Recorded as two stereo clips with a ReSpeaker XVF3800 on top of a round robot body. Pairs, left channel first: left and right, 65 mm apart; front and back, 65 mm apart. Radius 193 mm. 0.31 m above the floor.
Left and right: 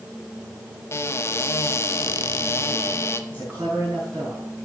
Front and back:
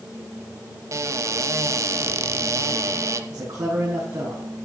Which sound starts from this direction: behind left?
A cupboard door, at 0.9 s.